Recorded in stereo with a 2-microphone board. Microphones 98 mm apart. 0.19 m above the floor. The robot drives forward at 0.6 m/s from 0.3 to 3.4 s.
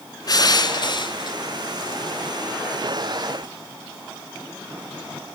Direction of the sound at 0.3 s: 45° left (ahead or behind).